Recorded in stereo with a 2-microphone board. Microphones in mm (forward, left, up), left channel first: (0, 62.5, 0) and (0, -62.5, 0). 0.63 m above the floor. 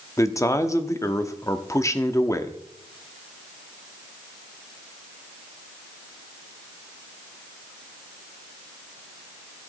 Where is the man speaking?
25° left (ahead or behind), 0.9 m.